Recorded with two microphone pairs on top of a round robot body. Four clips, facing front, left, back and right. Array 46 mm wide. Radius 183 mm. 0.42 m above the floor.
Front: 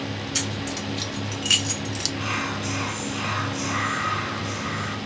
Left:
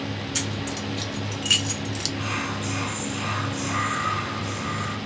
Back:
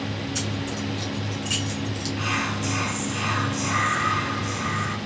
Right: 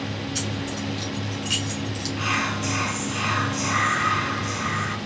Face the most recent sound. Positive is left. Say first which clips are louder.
# right 6 dB, back 2 dB
turn(degrees=-105)